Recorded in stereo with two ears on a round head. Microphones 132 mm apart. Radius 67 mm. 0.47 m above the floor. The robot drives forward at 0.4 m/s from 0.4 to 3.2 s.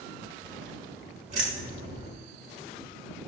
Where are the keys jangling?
50° right (ahead or behind), 1.6 m; by 2.1 s 45° right (ahead or behind), 1.7 m.